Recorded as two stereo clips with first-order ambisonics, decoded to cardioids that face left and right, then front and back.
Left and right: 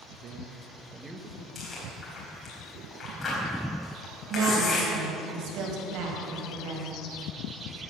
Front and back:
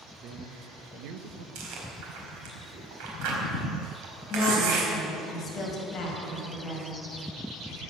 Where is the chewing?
165° left, 4 m.